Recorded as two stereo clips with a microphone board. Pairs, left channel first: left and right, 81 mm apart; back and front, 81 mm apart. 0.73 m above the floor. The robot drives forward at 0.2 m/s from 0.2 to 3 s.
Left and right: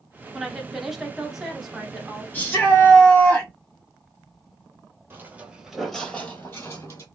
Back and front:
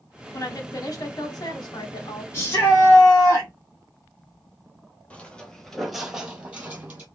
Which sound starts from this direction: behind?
A woman speaking, at 0.3 s.